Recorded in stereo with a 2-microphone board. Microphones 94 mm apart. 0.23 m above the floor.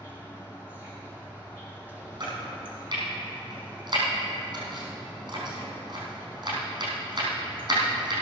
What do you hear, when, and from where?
0.0 s an insect: 20° right (ahead or behind), 3.5 m
2.2 s chopping: 55° right (ahead or behind), 4.5 m